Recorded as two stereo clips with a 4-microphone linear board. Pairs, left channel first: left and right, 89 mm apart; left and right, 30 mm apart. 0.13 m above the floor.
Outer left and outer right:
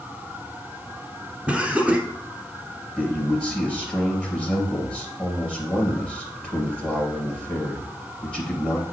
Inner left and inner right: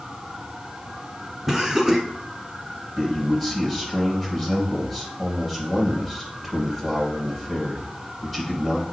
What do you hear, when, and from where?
1.5 s laughter: 10° right (ahead or behind), 1.1 m
3.0 s a man speaking: 10° left (ahead or behind), 3 m